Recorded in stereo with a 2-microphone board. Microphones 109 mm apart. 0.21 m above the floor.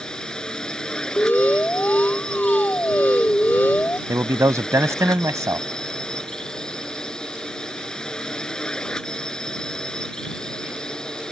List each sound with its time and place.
0.0 s a drone: 10° left (ahead or behind)
1.2 s an alarm: 15° left (ahead or behind)
4.1 s a man speaking: 30° right (ahead or behind)